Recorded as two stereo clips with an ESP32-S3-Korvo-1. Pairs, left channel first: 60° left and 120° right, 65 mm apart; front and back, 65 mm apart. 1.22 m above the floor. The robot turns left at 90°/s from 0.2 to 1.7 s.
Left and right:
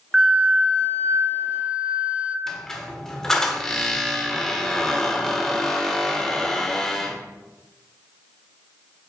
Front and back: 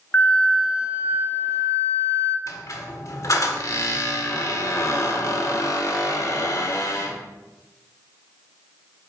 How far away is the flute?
About 0.7 m.